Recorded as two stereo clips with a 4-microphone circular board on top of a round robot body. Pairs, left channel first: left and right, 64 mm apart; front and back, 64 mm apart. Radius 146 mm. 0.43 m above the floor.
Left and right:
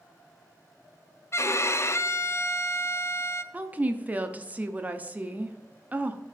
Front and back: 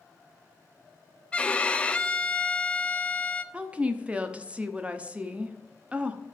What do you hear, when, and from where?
1.3 s a violin: 65° left, 0.6 m
3.5 s a woman speaking: 130° right, 0.9 m